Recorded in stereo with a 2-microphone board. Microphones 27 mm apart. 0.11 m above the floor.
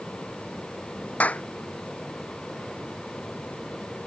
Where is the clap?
65° left (ahead or behind).